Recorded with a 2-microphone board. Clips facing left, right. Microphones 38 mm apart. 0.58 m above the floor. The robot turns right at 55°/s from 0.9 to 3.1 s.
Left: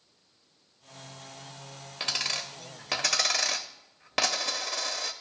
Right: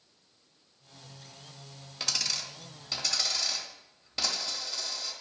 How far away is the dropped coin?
About 0.6 m.